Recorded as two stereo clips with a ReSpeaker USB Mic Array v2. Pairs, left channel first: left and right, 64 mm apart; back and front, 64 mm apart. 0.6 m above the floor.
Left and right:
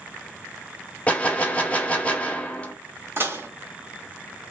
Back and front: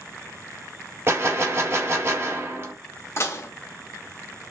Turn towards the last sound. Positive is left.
turn(degrees=-140)